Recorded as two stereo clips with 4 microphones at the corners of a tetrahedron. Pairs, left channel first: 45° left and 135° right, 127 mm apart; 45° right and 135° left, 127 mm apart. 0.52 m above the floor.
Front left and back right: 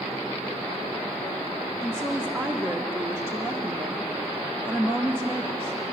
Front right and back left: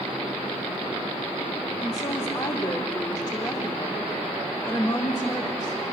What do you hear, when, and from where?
1.8 s a woman speaking: 80° right, 0.9 m